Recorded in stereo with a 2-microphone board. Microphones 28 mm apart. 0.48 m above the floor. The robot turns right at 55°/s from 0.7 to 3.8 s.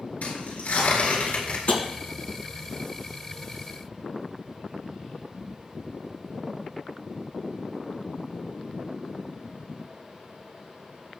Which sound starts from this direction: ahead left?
Tearing paper, at 0.2 s.